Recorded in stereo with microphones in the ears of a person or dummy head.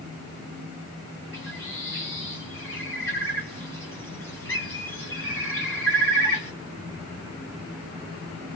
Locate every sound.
1.3 s a bird: 15° left (ahead or behind), 2.0 m